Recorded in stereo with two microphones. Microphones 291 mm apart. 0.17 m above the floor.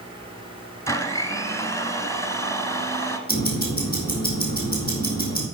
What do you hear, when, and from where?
0.9 s a blender: 10° left (ahead or behind), 0.8 m
3.3 s ticking: 30° left (ahead or behind), 3.5 m